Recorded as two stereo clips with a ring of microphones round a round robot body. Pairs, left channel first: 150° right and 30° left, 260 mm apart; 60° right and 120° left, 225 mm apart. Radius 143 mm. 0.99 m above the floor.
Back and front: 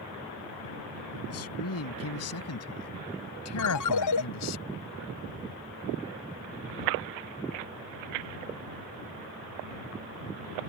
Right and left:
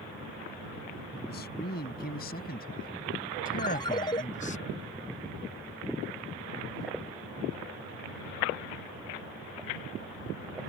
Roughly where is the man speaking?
Behind right.